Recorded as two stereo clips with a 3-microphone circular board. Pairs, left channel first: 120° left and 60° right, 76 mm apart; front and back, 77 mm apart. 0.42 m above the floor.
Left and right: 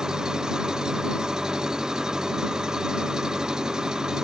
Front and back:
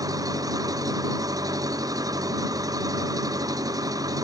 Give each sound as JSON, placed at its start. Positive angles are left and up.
{"t": 0.0, "sound": "an engine running", "azimuth_deg": -140}